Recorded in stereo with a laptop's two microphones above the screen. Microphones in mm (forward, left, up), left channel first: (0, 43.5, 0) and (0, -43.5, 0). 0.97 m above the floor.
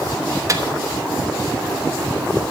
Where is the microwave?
40° right (ahead or behind), 1.1 m.